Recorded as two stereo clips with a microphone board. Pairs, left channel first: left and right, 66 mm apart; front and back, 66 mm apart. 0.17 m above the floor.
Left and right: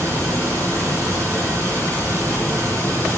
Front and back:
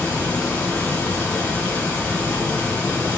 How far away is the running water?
About 1.9 m.